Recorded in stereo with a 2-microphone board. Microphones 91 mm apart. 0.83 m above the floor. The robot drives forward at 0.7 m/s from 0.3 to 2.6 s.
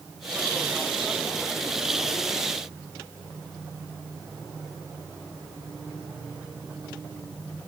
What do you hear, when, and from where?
Only background noise.